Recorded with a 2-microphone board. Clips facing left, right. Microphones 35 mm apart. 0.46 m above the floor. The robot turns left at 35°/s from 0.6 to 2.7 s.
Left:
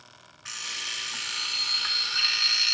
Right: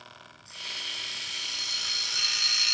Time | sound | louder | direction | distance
0.5 | an alarm clock | left 2 dB | 85° left | 1.9 m